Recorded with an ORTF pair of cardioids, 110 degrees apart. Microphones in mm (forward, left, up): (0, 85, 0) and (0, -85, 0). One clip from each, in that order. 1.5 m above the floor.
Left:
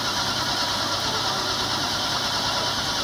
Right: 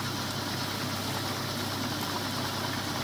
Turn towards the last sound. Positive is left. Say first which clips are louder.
# left 9 dB
turn(degrees=65)